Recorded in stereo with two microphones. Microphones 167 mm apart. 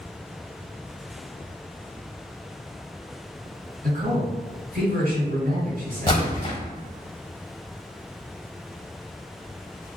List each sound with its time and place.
3.8 s a man speaking: 60° right (ahead or behind), 1.9 m
6.1 s a splash: 30° left (ahead or behind), 1.4 m